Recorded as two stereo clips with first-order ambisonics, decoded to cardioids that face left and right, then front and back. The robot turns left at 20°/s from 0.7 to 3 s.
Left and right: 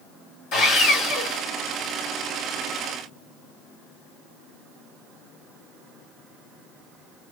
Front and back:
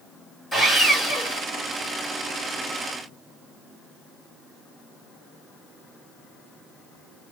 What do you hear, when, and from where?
0.5 s sawing: 80° left, 1.8 m; by 1.4 s 65° left, 1.8 m